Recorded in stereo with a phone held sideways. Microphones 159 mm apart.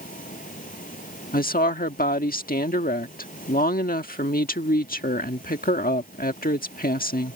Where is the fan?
65° left (ahead or behind).